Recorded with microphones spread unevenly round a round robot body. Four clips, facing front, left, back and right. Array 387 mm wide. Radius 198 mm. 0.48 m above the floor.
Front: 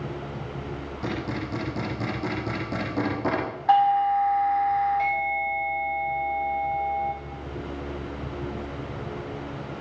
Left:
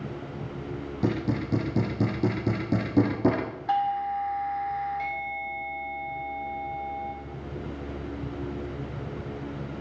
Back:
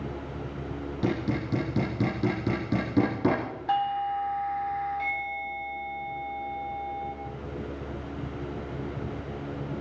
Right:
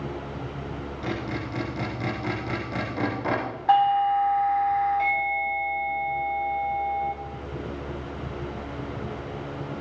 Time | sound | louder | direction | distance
1.0 | hammering | left 4 dB, back 2 dB | 120° left | 9.5 m
3.7 | a doorbell | right 7 dB, front 8 dB | 35° right | 5.5 m